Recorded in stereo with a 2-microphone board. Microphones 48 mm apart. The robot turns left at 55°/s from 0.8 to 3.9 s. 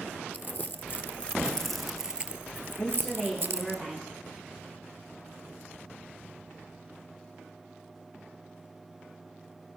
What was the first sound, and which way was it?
Crumpling, 50° left (ahead or behind).